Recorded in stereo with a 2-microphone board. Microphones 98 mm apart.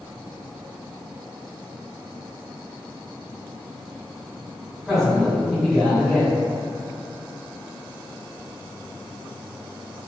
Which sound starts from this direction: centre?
A man speaking, at 4.8 s.